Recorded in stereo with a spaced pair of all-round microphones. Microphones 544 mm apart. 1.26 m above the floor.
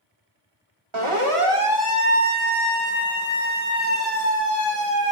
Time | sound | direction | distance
0.9 | a siren | 60° right (ahead or behind) | 3 m